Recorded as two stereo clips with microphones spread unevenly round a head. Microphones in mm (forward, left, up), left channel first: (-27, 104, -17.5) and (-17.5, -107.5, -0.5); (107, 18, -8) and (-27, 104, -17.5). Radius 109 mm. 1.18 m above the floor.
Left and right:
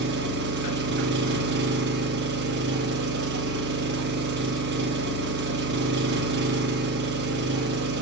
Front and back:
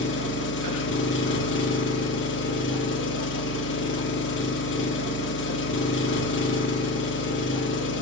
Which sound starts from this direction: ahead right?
An engine running, at 0.0 s.